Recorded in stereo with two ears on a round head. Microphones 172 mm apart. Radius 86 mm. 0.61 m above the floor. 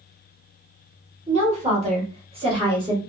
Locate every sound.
1.3 s a woman speaking: 35° right (ahead or behind), 1.6 m; by 3.0 s 25° right (ahead or behind), 1.3 m